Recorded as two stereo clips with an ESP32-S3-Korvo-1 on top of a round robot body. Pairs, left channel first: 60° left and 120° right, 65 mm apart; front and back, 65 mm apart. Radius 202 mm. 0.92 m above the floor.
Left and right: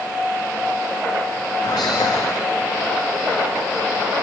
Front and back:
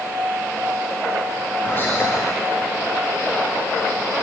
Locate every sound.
1.6 s whispering: 60° left, 1.7 m